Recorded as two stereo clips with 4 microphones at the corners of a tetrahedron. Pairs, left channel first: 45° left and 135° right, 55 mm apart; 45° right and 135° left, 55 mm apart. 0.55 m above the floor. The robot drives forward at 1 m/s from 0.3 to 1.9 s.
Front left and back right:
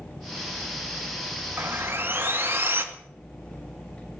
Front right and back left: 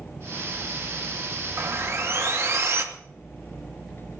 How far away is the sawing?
About 2 m.